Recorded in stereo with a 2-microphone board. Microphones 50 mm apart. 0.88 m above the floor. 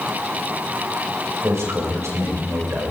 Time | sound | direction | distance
1.4 | a man speaking | 80° right | 5 m